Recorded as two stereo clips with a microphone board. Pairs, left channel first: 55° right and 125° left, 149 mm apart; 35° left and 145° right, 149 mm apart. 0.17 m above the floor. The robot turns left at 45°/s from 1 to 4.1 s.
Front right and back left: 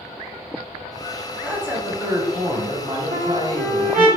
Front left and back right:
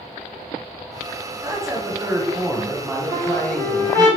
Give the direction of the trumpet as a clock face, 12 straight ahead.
7 o'clock.